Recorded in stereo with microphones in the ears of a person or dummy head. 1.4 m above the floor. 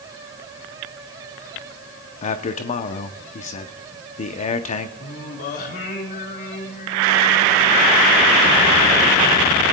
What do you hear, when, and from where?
2.2 s a man speaking: 40° left (ahead or behind), 0.7 m
5.0 s singing: 50° left (ahead or behind), 3 m